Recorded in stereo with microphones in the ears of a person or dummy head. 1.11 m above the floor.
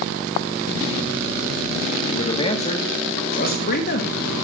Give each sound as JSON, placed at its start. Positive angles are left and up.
{"t": 2.1, "sound": "a man speaking", "side_deg": 25, "distance_m": 2.0}